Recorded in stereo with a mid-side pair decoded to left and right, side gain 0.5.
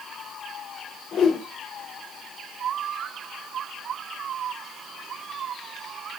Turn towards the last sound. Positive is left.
turn(degrees=65)